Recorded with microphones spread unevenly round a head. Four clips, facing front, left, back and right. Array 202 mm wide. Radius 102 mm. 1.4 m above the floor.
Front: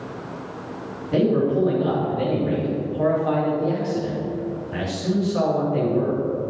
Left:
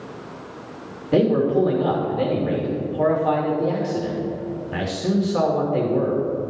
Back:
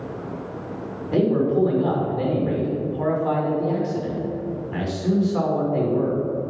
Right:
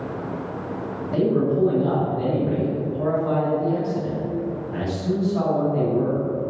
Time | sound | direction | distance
1.1 | a man speaking | 90° left | 2.5 m